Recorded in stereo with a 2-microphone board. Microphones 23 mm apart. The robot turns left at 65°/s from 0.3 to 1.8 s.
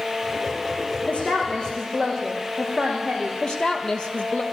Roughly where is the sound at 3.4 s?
Left.